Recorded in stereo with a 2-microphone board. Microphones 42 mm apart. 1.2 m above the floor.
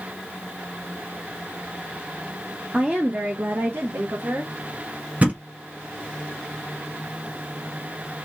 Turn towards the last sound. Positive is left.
turn(degrees=-30)  # may be behind; listen again after turning